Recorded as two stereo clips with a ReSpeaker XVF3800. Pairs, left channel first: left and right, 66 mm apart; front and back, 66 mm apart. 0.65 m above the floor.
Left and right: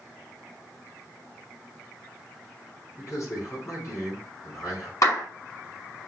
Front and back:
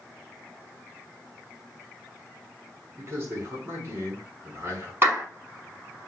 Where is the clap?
125° left, 5 m.